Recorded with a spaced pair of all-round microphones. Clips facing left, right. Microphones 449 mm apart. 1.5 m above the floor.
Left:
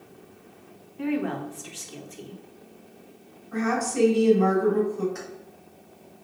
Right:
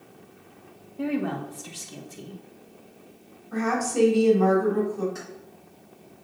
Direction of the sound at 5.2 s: 50° right (ahead or behind).